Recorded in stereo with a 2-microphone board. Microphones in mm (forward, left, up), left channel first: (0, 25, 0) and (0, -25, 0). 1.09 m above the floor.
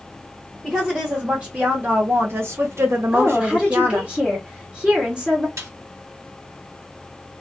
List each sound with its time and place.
0.6 s a woman speaking: 10° right (ahead or behind), 1.1 m; by 4.1 s 45° right (ahead or behind), 1.0 m
3.1 s a woman speaking: 20° right (ahead or behind), 0.9 m
5.6 s a snare drum: 70° right (ahead or behind), 1.2 m